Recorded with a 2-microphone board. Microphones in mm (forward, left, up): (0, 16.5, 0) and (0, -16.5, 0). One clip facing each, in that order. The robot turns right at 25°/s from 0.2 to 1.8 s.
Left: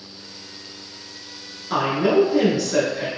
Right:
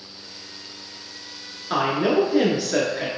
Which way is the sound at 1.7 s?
20° right (ahead or behind).